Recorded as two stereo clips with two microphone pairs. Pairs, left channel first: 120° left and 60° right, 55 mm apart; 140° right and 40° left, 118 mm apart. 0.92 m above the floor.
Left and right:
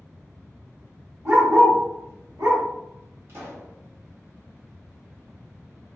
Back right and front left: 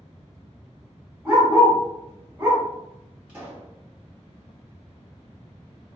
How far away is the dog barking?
About 1.1 m.